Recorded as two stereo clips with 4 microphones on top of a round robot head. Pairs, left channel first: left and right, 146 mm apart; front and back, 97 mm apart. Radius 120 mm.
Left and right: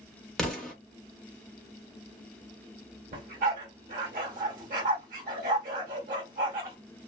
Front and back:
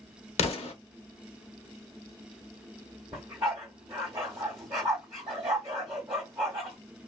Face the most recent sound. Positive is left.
turn(degrees=-105)